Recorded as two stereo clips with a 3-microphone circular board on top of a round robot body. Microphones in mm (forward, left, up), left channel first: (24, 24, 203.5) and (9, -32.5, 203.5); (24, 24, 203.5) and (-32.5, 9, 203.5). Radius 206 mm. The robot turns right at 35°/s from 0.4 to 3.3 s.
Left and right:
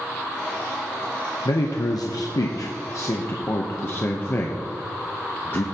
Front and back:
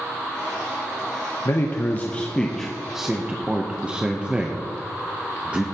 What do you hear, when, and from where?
1.4 s a man speaking: 60° left, 0.8 m; by 5.6 s 125° left, 0.8 m